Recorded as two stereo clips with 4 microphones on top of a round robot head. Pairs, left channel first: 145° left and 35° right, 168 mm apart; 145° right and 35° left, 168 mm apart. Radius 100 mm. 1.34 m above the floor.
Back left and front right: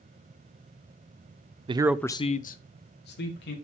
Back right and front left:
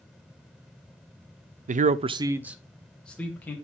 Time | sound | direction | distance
1.7 | a man speaking | 10° left | 0.5 m